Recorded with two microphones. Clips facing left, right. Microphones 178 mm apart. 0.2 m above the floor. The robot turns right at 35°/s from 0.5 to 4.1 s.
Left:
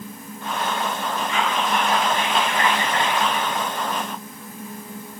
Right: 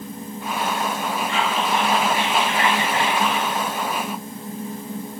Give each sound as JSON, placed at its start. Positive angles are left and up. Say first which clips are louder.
{"t": 1.3, "sound": "whispering", "louder": "even", "azimuth_deg": -90, "distance_m": 1.4}